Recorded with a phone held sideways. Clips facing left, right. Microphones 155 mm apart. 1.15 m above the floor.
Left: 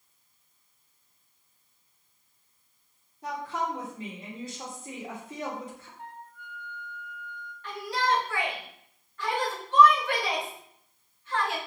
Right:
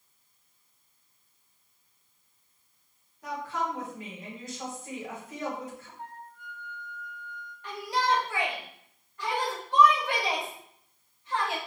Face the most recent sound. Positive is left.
turn(degrees=-15)  # may be behind; listen again after turning